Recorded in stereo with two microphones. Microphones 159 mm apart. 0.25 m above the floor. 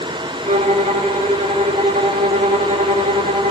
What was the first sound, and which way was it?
A violin, 50° right (ahead or behind).